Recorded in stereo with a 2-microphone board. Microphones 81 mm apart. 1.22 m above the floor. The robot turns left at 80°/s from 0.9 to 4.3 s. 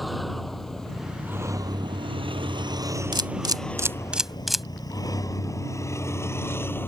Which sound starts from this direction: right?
A camera shutter, at 3.1 s.